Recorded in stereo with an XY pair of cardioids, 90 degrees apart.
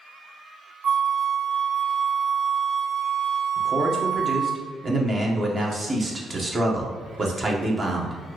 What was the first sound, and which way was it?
A flute, 55° right.